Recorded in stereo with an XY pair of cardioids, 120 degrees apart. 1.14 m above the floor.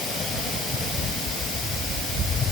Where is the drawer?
I don't hear a drawer.